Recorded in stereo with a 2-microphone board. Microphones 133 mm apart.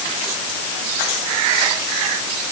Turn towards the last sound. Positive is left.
No sound to turn to.